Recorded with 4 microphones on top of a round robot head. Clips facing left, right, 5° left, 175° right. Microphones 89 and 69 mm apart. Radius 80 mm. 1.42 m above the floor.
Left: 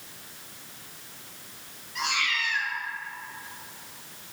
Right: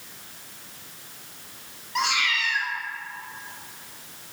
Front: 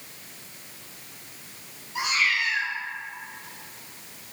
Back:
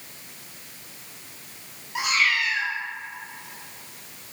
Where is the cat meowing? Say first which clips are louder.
Right 4 dB, back 2 dB; 125° right, 1.3 m.